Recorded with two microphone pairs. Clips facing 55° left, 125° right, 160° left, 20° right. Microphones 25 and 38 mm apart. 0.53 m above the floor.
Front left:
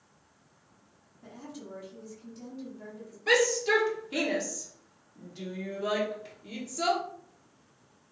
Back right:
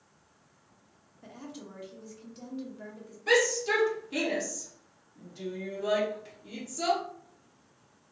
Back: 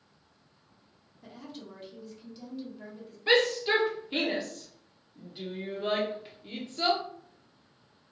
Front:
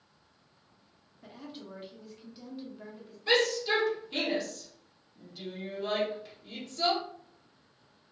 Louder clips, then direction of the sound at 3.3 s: Front left 1 dB, back 2 dB; 115° left.